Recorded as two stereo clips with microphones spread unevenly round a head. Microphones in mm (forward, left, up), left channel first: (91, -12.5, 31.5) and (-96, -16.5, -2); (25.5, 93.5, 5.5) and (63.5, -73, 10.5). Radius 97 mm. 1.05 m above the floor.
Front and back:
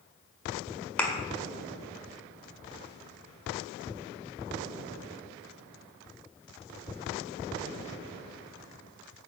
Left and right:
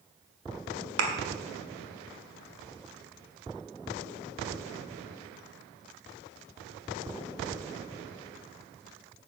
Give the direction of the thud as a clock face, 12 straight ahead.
3 o'clock.